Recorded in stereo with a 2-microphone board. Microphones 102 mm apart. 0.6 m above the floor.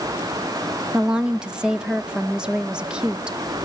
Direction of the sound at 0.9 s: 10° right (ahead or behind).